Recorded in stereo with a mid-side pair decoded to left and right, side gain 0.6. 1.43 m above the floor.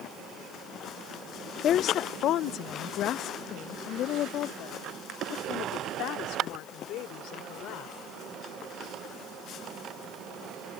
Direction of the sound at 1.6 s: 55° left.